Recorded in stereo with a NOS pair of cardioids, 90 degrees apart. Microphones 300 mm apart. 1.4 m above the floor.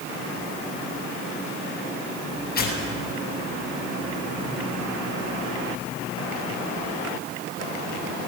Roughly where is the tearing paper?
Ahead left.